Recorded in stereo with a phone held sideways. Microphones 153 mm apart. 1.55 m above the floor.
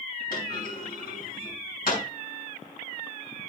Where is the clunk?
70° left (ahead or behind), 5 m.